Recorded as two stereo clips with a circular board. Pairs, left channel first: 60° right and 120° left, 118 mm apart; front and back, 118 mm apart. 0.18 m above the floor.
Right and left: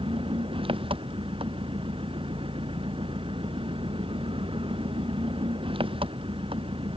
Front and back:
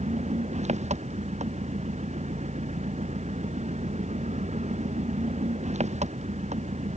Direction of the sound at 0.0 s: 160° left.